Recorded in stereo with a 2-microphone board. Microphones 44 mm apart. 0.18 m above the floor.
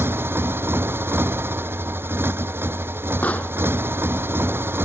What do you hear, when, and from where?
0.0 s a motorcycle: 65° right (ahead or behind)
3.2 s a pop: 35° left (ahead or behind)